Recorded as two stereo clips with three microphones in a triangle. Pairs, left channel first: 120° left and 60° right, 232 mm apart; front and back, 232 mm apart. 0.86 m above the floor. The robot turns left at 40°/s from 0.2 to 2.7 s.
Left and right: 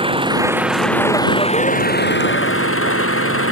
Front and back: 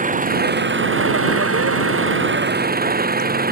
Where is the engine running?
125° right; by 3.5 s 135° left.